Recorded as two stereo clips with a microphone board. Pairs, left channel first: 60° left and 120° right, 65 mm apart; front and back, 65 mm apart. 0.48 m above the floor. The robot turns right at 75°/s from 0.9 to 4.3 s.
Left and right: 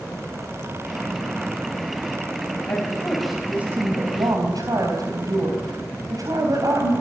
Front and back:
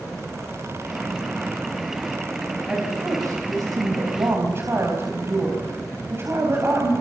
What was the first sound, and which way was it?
A woman speaking, 105° left.